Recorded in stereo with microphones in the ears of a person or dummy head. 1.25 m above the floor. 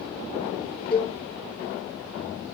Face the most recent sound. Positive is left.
turn(degrees=0)  # may be behind; listen again after turning